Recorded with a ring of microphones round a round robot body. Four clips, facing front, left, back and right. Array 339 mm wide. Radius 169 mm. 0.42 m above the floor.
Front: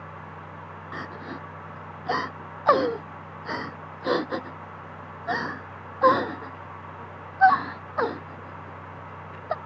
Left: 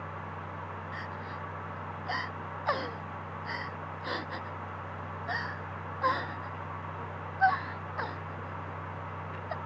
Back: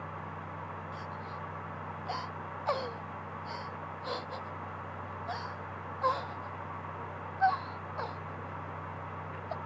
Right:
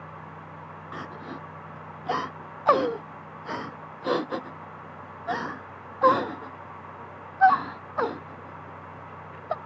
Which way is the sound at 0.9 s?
35° right.